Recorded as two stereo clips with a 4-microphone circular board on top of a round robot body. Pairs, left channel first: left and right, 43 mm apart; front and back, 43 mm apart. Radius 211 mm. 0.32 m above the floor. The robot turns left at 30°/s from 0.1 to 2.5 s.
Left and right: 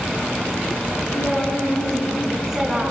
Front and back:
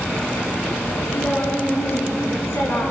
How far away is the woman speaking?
About 6 m.